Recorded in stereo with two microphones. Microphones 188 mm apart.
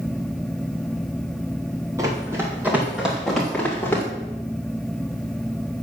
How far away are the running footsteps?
About 4.5 m.